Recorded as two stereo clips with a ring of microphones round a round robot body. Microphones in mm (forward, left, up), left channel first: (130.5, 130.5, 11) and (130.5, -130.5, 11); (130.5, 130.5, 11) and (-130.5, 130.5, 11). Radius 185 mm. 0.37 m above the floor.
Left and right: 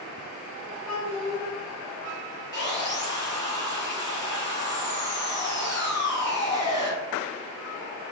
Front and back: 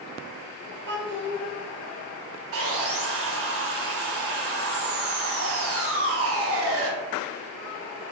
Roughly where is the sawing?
Behind.